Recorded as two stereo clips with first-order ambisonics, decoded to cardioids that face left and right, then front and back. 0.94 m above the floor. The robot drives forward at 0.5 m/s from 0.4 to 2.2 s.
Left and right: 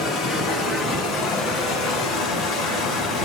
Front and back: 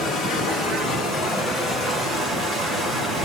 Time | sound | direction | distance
0.0 | running water | 50° left | 1.3 m